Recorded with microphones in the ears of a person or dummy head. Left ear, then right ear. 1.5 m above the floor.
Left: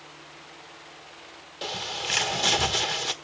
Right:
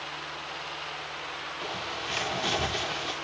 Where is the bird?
30° left (ahead or behind), 1.4 m.